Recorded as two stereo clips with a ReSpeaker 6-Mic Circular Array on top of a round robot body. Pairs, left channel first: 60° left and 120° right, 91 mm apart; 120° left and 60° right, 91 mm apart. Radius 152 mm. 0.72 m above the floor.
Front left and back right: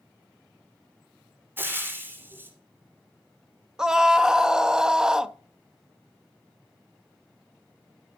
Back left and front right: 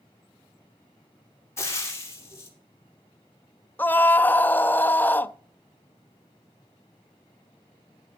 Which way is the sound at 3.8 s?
165° left.